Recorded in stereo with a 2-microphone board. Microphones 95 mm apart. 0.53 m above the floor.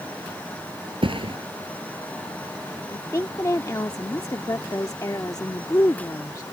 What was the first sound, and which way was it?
A thud, 70° right (ahead or behind).